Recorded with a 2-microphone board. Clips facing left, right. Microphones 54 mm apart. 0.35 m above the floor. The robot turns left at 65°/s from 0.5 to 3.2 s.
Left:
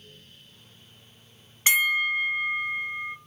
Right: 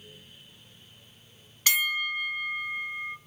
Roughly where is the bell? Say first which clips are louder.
Left 5 dB; left.